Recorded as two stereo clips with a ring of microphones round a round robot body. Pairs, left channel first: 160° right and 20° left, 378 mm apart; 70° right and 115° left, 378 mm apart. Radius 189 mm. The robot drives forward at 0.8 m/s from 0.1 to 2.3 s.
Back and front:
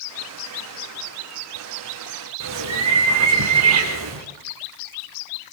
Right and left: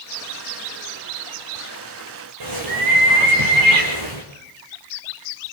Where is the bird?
75° left, 5 m.